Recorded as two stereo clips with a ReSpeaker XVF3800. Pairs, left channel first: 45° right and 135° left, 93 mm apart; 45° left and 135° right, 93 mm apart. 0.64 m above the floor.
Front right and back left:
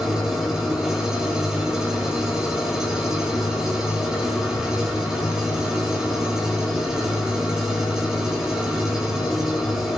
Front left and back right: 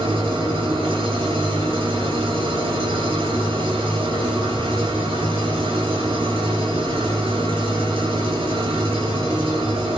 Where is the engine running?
145° right, 5.5 m.